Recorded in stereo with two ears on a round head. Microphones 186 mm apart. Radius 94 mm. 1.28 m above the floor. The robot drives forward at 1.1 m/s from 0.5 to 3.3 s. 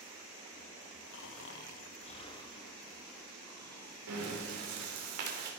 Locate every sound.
1.1 s snoring: 55° left (ahead or behind), 0.6 m; by 4.0 s 15° left (ahead or behind), 2.5 m
4.1 s breathing: 75° right (ahead or behind), 3 m